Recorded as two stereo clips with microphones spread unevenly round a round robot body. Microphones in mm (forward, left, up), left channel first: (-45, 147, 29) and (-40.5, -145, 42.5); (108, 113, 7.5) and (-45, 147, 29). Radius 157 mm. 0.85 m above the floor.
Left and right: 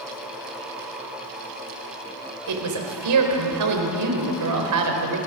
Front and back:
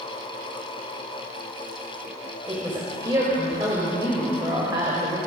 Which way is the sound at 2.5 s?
115° right.